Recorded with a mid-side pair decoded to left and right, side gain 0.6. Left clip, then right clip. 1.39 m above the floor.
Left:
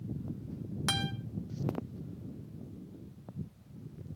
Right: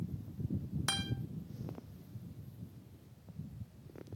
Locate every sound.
0.9 s a guitar: 10° left, 1.2 m